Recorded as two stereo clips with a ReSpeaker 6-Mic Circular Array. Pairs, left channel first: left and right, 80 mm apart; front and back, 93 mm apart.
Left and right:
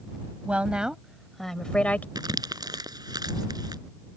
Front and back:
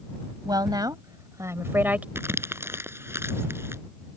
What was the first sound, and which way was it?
A woman speaking, 160° right.